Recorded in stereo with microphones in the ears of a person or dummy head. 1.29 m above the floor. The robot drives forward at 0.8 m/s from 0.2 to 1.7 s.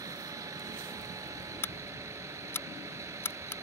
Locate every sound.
0.0 s a vehicle: 20° right (ahead or behind)
1.6 s scissors: 10° left (ahead or behind)